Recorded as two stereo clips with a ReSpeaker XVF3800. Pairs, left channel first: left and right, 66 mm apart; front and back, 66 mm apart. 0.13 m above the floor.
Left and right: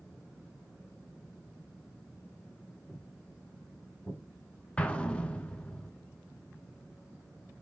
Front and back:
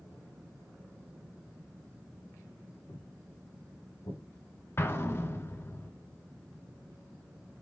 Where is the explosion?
25° left, 0.7 m.